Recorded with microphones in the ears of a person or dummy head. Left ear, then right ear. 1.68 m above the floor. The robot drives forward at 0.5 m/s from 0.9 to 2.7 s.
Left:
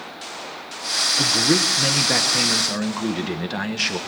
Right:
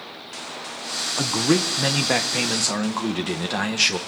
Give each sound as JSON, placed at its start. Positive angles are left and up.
{"t": 1.2, "sound": "a man speaking", "side_deg": -35, "distance_m": 1.2}